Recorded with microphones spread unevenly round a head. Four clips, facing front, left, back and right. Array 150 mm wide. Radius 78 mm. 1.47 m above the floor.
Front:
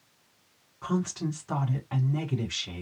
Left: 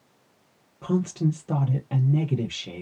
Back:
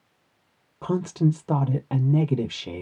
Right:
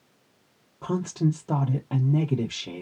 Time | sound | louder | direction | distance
0.8 | a woman speaking | left 1 dB, back 6 dB | 165° left | 0.8 m